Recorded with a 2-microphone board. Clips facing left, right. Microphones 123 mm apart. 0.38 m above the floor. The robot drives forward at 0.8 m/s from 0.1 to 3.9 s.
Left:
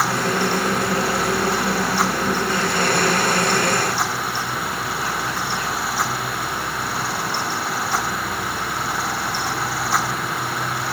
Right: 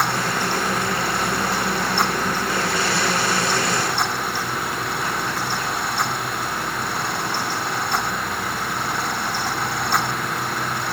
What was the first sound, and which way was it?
Only background noise.